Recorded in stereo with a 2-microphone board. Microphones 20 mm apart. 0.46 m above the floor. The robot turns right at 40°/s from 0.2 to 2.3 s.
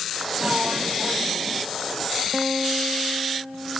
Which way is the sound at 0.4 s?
105° right.